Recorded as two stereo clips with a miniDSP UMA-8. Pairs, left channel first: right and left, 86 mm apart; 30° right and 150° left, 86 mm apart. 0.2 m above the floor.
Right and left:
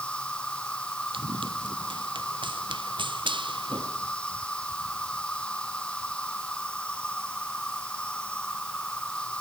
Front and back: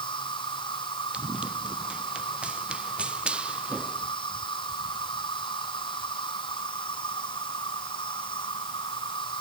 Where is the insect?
15° right.